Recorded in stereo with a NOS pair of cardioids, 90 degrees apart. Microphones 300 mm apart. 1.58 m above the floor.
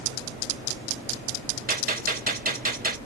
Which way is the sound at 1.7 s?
30° right.